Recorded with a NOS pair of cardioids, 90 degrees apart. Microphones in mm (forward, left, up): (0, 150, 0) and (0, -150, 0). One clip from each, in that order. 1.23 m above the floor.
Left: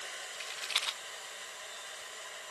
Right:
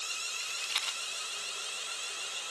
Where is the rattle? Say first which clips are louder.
Left 2 dB; 10° left, 1.3 m.